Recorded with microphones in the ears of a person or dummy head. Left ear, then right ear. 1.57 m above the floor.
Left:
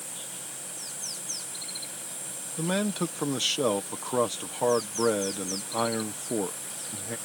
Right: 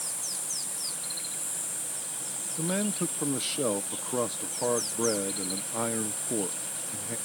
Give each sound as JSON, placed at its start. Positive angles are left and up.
{"t": 2.6, "sound": "a man speaking", "side_deg": 40}